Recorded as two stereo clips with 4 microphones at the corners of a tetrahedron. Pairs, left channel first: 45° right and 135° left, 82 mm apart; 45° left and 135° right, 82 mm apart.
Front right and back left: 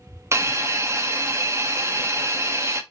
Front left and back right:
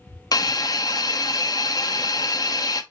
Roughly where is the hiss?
Left.